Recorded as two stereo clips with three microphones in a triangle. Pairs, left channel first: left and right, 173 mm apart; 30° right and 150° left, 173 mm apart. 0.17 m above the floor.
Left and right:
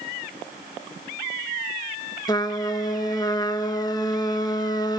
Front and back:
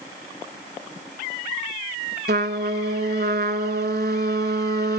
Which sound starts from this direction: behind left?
A trumpet, at 2.3 s.